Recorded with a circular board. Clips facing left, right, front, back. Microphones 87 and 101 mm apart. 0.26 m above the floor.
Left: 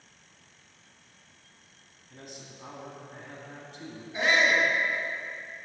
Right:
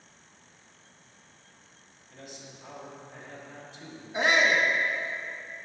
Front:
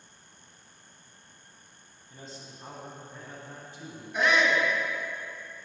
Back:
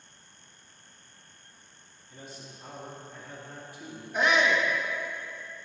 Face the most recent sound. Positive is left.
turn(degrees=-110)